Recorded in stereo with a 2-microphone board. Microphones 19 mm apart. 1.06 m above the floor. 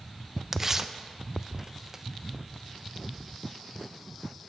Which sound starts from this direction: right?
Tearing paper, at 0.5 s.